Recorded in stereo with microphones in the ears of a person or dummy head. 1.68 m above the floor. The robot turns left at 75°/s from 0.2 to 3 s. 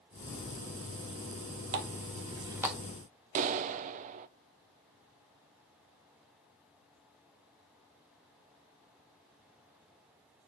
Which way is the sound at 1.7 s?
50° right (ahead or behind).